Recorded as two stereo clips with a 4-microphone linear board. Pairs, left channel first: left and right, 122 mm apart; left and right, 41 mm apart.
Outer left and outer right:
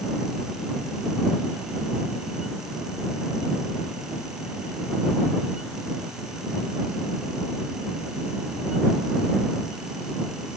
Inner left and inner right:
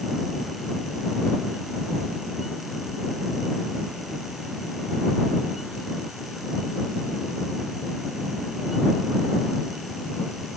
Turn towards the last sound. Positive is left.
No sound to turn to.